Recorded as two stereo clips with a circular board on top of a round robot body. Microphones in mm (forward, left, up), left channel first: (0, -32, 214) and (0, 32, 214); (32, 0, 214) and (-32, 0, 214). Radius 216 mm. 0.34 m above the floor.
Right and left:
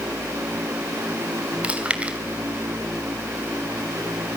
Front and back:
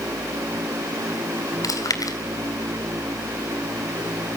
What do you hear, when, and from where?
1.6 s chewing: 20° left, 3 m